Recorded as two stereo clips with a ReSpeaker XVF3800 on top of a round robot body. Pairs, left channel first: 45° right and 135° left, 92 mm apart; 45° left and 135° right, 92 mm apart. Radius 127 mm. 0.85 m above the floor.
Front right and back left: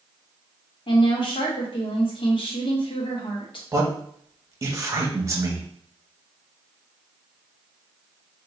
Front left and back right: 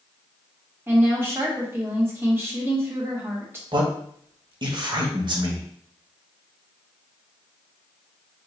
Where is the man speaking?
170° right, 1.0 m.